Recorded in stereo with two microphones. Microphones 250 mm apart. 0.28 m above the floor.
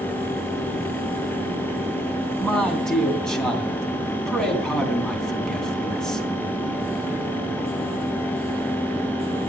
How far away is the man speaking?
About 3 m.